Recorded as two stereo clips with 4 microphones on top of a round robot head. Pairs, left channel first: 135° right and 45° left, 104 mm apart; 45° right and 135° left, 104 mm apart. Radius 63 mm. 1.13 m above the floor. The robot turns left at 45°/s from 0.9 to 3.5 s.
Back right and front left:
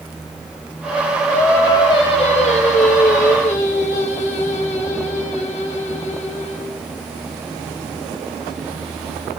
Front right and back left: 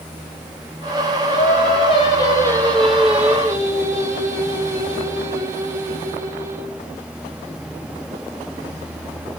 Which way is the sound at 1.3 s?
60° right.